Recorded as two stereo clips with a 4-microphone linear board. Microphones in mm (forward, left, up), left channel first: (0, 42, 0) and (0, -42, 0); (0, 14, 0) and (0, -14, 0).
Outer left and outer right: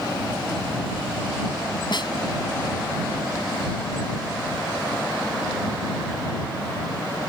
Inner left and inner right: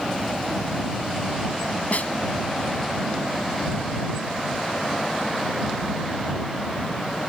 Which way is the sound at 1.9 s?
65° left (ahead or behind).